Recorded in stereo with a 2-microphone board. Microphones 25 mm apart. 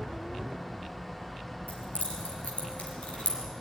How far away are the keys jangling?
About 5.5 m.